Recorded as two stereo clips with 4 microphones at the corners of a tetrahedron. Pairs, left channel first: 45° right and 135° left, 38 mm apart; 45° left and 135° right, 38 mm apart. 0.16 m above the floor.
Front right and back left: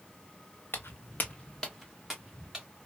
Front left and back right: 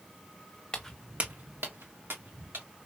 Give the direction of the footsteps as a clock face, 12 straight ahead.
1 o'clock.